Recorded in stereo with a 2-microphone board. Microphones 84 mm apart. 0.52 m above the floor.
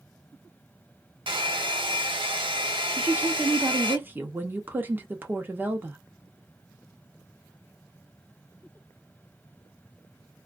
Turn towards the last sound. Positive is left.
turn(degrees=-25)  # may be behind; listen again after turning